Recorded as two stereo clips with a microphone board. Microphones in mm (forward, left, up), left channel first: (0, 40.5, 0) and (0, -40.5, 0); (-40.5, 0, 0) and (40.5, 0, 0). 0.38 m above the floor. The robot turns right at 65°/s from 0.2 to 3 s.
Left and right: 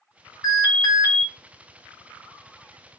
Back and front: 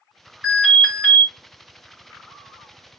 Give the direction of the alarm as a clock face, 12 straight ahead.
10 o'clock.